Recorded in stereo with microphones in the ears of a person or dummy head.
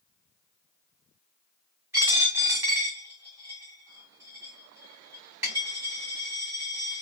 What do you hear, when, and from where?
1.9 s a dropped coin: 10° right (ahead or behind), 1.6 m